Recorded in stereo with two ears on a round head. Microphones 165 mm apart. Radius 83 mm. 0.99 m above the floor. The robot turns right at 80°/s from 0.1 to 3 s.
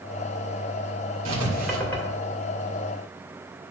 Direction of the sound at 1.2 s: 40° right (ahead or behind).